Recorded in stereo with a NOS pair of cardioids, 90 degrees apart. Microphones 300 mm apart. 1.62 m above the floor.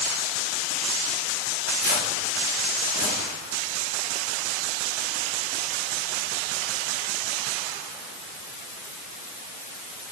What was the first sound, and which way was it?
Tearing paper, 40° left.